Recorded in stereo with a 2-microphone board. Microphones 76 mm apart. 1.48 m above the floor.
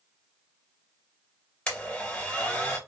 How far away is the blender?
About 2 m.